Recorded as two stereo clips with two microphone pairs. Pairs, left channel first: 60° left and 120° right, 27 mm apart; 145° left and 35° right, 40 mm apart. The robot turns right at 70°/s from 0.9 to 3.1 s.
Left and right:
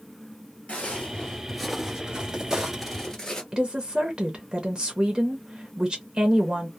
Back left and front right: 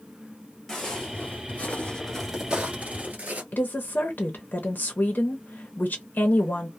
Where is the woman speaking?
175° right, 0.8 m.